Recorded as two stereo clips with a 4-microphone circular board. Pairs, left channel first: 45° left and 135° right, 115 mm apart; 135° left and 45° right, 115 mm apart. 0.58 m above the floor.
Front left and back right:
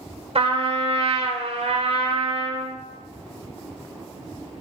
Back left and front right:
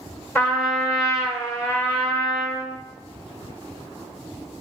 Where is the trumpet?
160° right, 1.2 m.